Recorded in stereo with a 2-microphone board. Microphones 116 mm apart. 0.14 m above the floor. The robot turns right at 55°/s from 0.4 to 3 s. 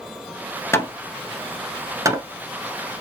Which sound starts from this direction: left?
Hammering, at 0.7 s.